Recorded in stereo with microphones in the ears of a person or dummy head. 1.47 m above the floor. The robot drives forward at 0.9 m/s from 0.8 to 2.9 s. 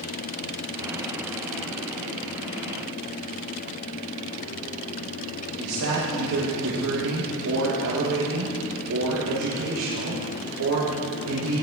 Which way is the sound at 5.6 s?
85° right.